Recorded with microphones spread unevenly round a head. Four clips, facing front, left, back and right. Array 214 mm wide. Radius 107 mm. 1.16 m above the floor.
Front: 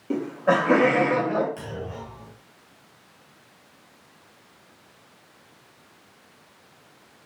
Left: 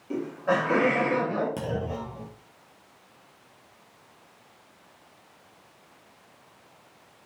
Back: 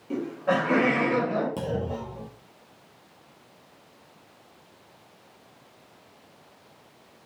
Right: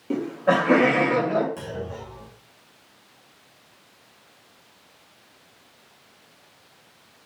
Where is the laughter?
50° right, 2.5 m; by 1.5 s 55° right, 3.5 m.